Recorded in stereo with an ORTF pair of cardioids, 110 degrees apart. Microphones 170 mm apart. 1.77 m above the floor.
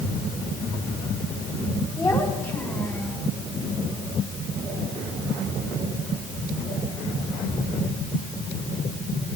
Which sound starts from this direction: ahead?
A child speaking, at 2.0 s.